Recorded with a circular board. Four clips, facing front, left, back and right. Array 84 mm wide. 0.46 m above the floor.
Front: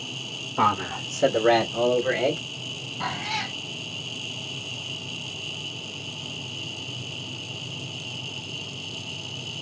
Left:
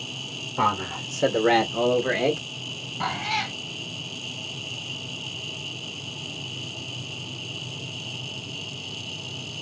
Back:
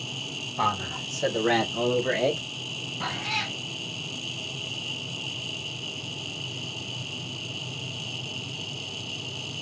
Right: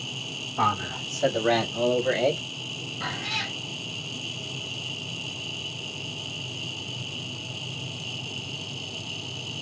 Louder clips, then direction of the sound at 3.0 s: Left 6 dB, front 2 dB; 80° left.